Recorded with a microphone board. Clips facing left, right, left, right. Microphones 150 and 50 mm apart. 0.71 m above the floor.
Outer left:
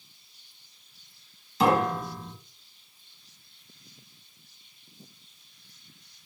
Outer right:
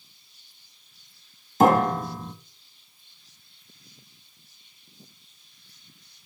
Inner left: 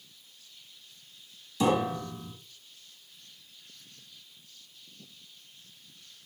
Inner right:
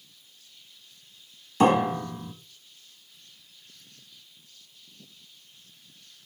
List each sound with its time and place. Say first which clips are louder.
1.6 s a piano: outer right 4 dB, inner right 5 dB; 45° right (ahead or behind), 1.1 m